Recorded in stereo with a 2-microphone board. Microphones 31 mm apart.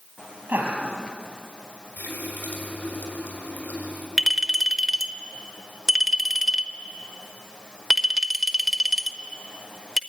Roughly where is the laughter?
Right.